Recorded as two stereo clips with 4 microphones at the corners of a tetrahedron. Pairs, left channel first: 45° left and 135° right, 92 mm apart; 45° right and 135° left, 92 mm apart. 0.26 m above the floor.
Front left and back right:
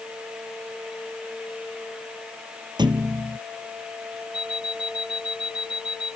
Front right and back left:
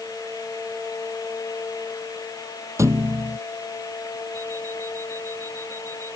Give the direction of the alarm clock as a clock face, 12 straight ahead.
9 o'clock.